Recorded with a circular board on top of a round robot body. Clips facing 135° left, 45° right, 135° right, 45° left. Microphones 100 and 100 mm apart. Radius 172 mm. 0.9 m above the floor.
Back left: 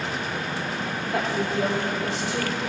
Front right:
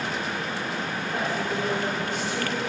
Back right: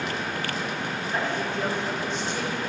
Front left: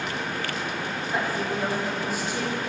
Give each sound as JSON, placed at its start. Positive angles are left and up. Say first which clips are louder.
{"t": 1.1, "sound": "a woman speaking", "louder": "back left 3 dB, front left 1 dB", "azimuth_deg": 130, "distance_m": 4.0}